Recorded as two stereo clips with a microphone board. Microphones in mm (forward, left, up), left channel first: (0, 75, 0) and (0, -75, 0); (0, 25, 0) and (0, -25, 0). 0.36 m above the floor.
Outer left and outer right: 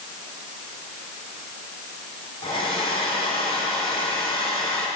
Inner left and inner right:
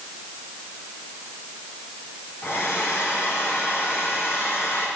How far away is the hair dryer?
About 4 m.